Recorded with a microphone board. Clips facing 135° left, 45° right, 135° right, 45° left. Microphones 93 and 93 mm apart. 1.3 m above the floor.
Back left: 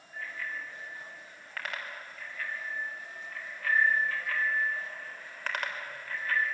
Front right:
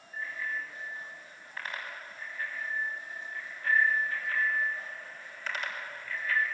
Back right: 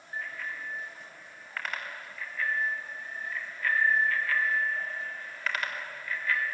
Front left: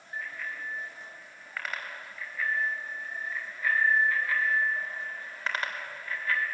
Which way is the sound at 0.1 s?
140° left.